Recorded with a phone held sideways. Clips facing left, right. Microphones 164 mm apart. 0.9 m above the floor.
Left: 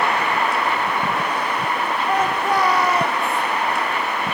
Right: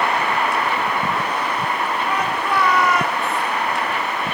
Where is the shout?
45° left (ahead or behind), 2.5 m; by 3.4 s 25° left (ahead or behind), 2.0 m.